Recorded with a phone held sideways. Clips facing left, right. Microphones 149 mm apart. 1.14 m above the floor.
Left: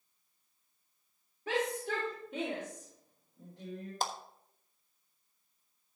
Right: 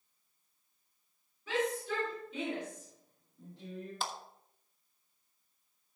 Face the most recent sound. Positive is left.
turn(degrees=40)  # may be behind; listen again after turning